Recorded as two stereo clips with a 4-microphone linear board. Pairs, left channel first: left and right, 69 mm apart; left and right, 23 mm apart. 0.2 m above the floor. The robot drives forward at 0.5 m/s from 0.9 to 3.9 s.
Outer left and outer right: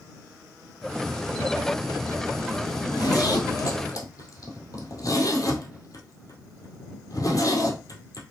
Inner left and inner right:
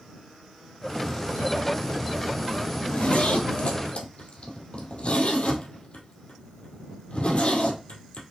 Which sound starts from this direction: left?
A zipper, at 2.8 s.